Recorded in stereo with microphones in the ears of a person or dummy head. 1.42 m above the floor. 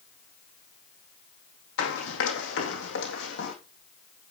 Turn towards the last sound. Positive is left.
turn(degrees=60)  # may be behind; listen again after turning